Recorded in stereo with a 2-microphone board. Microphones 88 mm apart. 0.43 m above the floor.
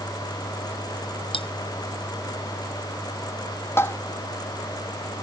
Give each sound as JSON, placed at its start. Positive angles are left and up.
{"t": 1.3, "sound": "cutlery clinking", "side_deg": 85}
{"t": 3.8, "sound": "tapping", "side_deg": 25}